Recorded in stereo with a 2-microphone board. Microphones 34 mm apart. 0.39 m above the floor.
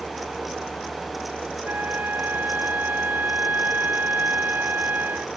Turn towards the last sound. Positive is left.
turn(degrees=-70)  # may be behind; listen again after turning